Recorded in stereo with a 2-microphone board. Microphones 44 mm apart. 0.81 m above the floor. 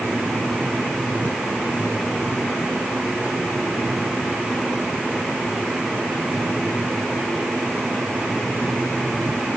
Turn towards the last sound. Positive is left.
No sound to turn to.